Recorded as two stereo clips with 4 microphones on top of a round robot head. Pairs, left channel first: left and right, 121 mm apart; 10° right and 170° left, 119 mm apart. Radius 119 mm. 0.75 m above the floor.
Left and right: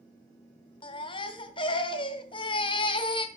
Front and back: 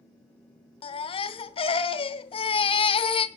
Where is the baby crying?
30° left, 0.9 m.